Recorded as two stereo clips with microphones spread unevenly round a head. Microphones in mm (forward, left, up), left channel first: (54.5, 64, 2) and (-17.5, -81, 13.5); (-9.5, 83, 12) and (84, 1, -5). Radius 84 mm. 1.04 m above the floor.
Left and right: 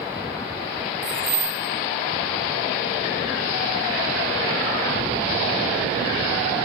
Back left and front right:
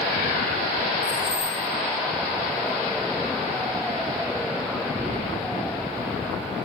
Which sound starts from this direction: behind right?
Keys jangling, at 1.0 s.